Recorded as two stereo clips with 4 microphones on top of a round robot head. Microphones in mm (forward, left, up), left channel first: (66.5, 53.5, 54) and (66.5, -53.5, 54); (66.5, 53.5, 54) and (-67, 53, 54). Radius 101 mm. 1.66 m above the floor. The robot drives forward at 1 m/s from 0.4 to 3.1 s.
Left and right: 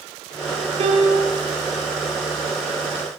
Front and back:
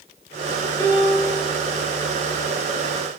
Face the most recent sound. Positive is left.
turn(degrees=-85)